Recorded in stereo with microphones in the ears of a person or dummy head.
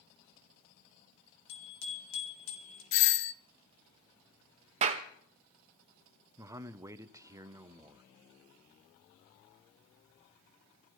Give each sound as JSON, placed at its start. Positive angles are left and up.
{"t": 1.5, "sound": "a bicycle bell", "side_deg": 75, "distance_m": 2.5}
{"t": 2.9, "sound": "a doorbell", "side_deg": 65, "distance_m": 0.7}
{"t": 4.8, "sound": "a clap", "side_deg": -30, "distance_m": 0.7}
{"t": 6.4, "sound": "a man speaking", "side_deg": -15, "distance_m": 0.6}